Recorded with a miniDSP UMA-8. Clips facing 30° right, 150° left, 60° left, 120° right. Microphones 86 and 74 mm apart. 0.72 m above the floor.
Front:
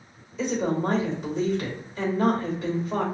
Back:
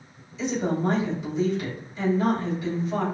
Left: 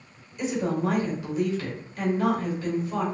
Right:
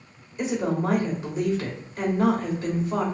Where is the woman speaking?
65° right, 3 m.